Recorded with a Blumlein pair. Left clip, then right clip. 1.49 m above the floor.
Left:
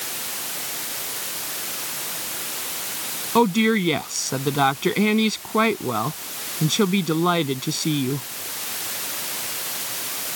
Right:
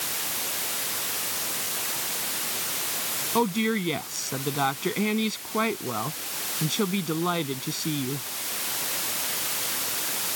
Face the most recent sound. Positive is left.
turn(degrees=20)